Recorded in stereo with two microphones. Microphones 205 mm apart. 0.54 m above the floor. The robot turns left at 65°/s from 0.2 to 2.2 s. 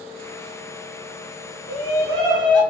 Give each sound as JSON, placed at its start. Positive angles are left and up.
{"t": 1.7, "sound": "a shout", "azimuth_deg": 35, "distance_m": 2.5}